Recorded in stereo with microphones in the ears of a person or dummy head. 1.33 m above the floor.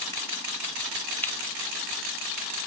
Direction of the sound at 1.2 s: 5° left (ahead or behind).